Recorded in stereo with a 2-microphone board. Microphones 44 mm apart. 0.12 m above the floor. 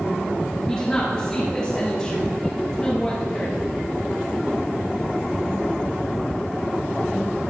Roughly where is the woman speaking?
Centre.